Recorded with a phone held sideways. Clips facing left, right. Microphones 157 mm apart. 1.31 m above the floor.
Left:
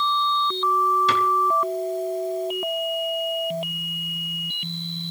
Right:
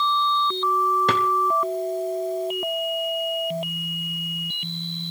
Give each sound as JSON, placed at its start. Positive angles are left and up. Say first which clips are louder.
{"t": 1.1, "sound": "a drawer", "louder": "even", "side_deg": -55, "distance_m": 2.5}